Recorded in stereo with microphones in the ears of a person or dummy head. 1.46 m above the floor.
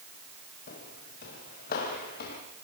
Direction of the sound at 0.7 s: 50° left (ahead or behind).